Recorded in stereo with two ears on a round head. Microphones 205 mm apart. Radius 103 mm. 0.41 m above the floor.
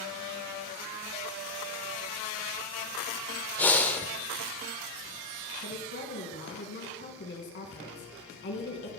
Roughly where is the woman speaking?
Left.